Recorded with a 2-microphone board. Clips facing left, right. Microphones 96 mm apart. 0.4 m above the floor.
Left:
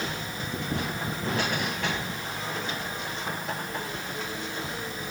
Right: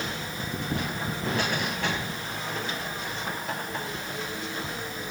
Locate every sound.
Only background noise.